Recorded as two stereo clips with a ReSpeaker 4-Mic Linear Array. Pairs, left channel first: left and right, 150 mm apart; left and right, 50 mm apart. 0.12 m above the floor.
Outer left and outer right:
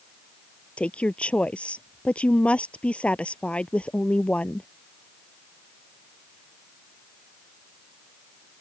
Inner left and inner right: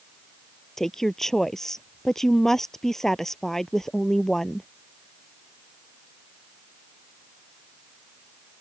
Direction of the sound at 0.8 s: 5° left (ahead or behind).